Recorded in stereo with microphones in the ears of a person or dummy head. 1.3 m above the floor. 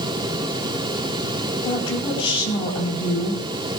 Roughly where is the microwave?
No microwave in this recording.